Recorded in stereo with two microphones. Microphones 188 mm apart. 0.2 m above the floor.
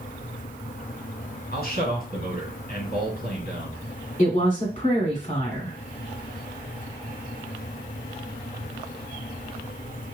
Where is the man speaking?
55° left (ahead or behind), 1.9 m.